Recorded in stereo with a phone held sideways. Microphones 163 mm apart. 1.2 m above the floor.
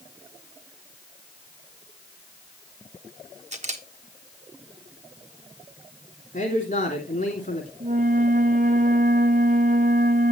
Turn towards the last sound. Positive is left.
turn(degrees=-55)  # may be behind; listen again after turning